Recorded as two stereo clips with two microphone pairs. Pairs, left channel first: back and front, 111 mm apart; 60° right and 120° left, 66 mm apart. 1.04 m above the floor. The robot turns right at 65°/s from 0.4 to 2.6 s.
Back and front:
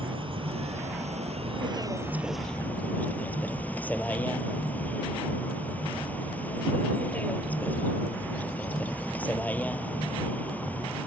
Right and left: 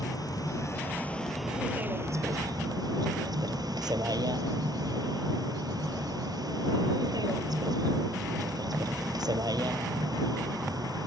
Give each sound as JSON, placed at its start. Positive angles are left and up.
{"t": 0.0, "sound": "a vehicle", "azimuth_deg": -40}